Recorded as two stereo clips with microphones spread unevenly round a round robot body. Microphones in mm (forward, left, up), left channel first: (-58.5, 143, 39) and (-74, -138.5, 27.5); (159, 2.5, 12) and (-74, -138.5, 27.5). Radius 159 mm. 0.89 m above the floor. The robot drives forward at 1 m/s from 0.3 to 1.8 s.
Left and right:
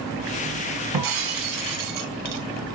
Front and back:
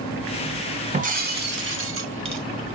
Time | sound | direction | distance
0.9 | breaking glass | 85° right | 2.5 m